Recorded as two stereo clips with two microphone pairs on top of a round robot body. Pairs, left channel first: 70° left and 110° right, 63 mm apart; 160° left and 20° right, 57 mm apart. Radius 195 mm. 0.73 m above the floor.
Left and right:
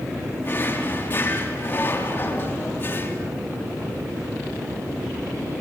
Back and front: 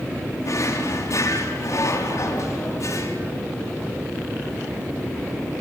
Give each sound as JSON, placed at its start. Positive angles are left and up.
{"t": 0.4, "sound": "a drawer", "azimuth_deg": 130, "distance_m": 3.5}